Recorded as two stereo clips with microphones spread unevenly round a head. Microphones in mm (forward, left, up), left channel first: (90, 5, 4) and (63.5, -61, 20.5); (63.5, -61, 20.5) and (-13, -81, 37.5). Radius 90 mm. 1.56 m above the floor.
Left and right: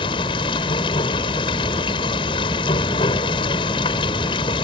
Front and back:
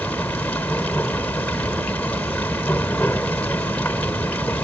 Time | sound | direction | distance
0.0 | running water | 95° left | ?